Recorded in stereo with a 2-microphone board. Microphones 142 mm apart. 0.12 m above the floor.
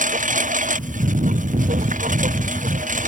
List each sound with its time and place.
0.0 s a lawn mower: 65° right (ahead or behind)